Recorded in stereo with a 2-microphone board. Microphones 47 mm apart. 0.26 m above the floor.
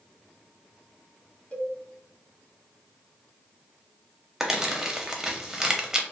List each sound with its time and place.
1.5 s a cowbell: 25° left (ahead or behind), 0.8 m
4.4 s crumpling: 10° right (ahead or behind), 0.6 m